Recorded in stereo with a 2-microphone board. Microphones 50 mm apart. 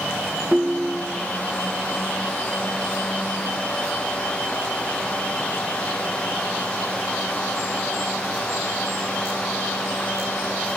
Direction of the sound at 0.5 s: 35° right (ahead or behind).